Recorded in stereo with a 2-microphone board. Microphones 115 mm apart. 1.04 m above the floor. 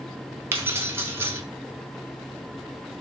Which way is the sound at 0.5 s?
20° right (ahead or behind).